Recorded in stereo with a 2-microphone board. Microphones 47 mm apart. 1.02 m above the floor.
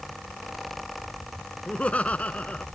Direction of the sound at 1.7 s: 30° left (ahead or behind).